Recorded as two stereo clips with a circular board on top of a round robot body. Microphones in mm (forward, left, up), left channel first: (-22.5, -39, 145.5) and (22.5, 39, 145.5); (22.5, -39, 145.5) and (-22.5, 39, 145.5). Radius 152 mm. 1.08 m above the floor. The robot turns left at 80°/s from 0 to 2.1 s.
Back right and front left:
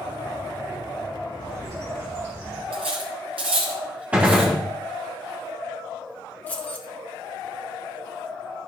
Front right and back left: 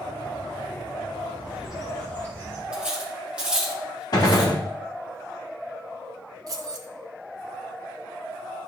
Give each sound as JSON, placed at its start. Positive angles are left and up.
{"t": 1.4, "sound": "a bird", "azimuth_deg": 65, "distance_m": 2.5}
{"t": 2.7, "sound": "cutlery clinking", "azimuth_deg": 40, "distance_m": 0.8}
{"t": 4.1, "sound": "a gunshot", "azimuth_deg": -15, "distance_m": 1.2}
{"t": 6.5, "sound": "keys jangling", "azimuth_deg": 165, "distance_m": 0.9}